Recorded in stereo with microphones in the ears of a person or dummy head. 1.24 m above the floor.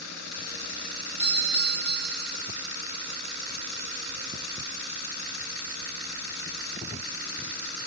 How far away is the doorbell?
About 3.5 m.